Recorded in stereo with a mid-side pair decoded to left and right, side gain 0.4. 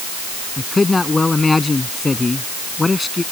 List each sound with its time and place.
0.6 s a man speaking: 30° left